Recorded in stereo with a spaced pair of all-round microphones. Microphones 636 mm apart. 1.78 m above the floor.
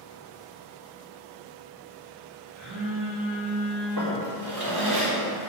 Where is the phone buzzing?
50° right (ahead or behind), 3 m.